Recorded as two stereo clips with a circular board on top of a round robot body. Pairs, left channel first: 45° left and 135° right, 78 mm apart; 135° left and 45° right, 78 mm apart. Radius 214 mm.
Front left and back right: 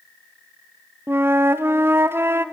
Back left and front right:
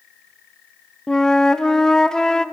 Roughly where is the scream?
I don't hear a scream.